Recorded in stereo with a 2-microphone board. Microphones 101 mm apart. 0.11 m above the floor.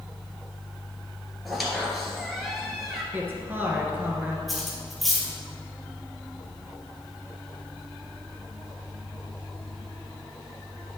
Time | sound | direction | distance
1.4 | a squeak | centre (ahead or behind) | 1.6 m
3.1 | a woman speaking | 20° right (ahead or behind) | 1.6 m
4.5 | cutlery clinking | centre (ahead or behind) | 1.7 m